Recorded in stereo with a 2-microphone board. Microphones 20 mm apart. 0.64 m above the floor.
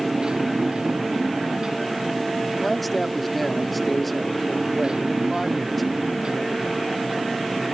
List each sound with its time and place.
0.0 s a motorcycle: 40° right (ahead or behind)
2.6 s a man speaking: 5° left (ahead or behind)